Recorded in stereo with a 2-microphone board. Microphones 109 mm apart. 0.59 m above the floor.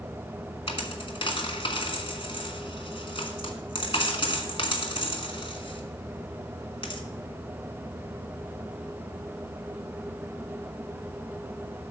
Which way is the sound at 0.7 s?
60° left (ahead or behind).